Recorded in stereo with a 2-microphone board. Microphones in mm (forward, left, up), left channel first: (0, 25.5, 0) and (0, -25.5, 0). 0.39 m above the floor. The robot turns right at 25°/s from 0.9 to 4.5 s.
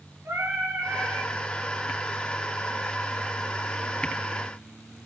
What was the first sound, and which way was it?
Singing, 55° right (ahead or behind).